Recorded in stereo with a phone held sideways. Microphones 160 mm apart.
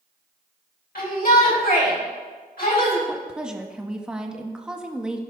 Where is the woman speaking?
5° right (ahead or behind), 1.0 m.